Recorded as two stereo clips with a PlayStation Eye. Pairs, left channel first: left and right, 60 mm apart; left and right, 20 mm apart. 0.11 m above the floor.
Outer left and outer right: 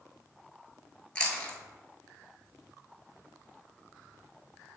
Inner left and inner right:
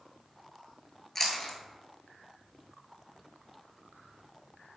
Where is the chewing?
20° left (ahead or behind), 0.5 m.